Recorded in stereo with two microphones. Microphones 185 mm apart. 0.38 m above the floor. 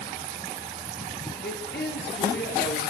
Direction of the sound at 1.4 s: 60° left (ahead or behind).